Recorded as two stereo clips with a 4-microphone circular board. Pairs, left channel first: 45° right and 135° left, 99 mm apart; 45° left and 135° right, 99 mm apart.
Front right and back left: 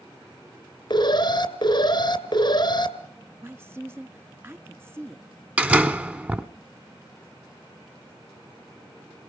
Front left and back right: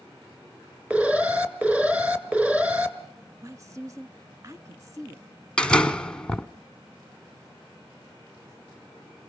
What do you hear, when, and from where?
0.9 s an alarm: 60° right, 1.8 m
3.4 s a woman speaking: 170° right, 1.3 m
5.6 s a door slam: 105° left, 0.9 m